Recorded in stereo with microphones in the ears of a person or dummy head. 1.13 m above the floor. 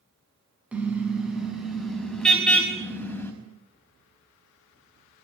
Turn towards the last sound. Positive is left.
turn(degrees=10)  # may be behind; listen again after turning